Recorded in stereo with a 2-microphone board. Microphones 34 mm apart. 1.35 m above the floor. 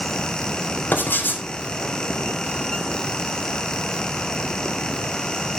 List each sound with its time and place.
0.9 s writing: 70° left (ahead or behind), 4 m